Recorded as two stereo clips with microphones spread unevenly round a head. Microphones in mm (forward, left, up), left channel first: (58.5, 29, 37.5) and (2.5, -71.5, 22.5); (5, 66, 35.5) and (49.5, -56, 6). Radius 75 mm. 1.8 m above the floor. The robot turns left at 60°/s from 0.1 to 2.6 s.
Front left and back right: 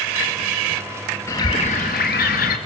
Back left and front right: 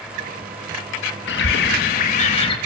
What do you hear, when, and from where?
1.3 s a bird: 135° left, 3.5 m; by 2.6 s 55° left, 3.5 m